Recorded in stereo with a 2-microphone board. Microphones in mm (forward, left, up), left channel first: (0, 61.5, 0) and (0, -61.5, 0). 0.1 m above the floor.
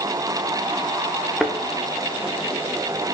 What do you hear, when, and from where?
1.4 s a thud: centre (ahead or behind), 2 m